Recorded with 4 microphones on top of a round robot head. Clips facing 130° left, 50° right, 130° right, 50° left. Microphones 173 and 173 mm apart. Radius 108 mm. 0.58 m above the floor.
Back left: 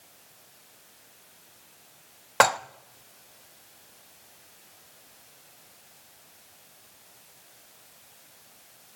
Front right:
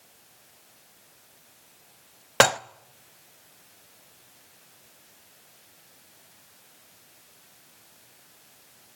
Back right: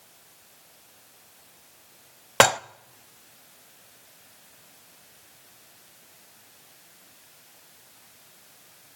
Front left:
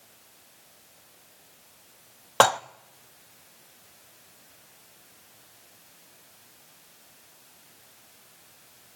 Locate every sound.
2.4 s dishes clattering: 75° right, 0.5 m